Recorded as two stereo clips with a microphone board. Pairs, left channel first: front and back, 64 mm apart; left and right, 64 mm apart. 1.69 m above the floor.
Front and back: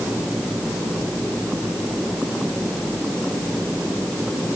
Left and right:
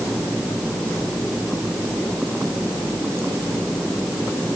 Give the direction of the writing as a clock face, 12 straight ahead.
No writing in this recording.